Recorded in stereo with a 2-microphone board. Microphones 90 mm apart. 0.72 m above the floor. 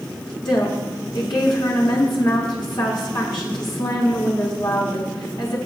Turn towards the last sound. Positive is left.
turn(degrees=55)  # may be behind; listen again after turning